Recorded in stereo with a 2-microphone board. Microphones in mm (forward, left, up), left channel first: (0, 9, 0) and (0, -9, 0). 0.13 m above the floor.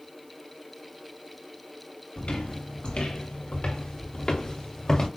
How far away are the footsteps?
About 1.9 m.